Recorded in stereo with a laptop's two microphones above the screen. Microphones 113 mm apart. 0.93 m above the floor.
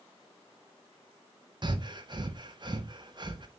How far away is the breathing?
About 0.7 m.